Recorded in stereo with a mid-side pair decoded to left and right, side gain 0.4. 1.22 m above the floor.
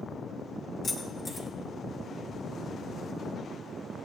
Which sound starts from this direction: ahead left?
Keys jangling, at 0.8 s.